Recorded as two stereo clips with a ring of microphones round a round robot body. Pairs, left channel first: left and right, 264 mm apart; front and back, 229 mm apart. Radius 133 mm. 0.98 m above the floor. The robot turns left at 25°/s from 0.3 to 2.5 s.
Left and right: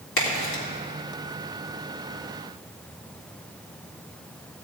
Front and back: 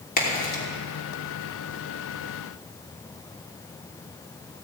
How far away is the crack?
About 3 m.